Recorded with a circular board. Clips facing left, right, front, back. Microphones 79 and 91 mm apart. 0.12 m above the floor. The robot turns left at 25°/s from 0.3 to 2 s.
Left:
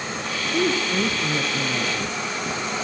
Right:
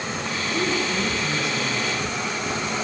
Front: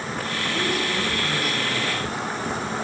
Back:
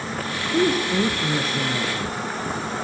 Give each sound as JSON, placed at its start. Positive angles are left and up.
{"t": 0.5, "sound": "a woman speaking", "azimuth_deg": 150, "distance_m": 3.0}